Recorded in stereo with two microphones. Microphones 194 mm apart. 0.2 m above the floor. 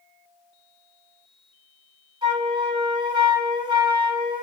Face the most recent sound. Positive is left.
turn(degrees=-25)  # may be behind; listen again after turning